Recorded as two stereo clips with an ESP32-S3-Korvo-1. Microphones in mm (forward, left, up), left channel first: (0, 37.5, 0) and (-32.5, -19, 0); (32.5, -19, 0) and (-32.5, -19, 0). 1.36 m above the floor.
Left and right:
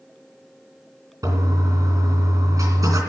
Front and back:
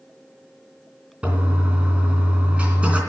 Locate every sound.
1.2 s a toilet flushing: 110° right, 3 m